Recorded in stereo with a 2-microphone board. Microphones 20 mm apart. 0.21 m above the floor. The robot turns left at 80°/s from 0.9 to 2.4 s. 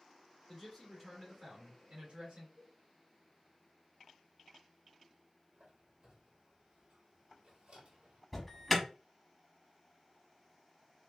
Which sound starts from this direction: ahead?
A man speaking, at 0.5 s.